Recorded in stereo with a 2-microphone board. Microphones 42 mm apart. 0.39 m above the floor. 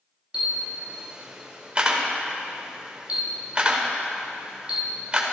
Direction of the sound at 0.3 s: 25° right (ahead or behind).